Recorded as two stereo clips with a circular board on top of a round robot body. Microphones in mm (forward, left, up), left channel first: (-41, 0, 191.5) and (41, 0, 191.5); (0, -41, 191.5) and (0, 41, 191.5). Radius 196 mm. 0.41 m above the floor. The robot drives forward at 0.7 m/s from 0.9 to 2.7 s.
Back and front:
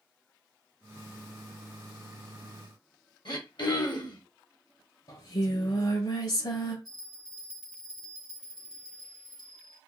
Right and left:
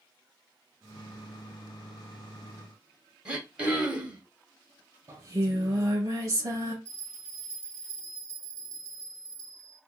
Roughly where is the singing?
Behind left.